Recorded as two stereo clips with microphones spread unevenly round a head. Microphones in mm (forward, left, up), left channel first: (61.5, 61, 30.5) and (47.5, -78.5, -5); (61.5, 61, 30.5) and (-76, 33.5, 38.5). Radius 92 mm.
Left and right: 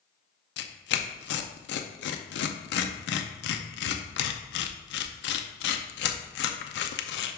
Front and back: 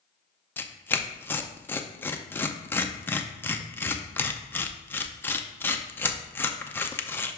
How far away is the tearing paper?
About 0.6 m.